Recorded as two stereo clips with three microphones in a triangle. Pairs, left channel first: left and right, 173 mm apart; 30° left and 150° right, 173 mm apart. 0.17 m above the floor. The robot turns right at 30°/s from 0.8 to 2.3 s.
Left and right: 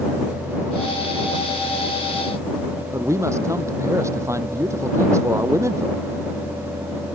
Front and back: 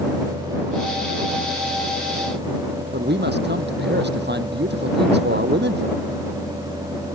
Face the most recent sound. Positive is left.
turn(degrees=-165)